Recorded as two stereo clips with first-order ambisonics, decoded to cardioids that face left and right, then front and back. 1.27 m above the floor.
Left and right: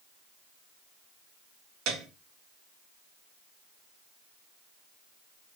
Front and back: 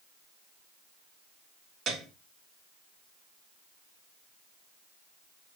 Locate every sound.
1.9 s a piano: 115° right, 1.7 m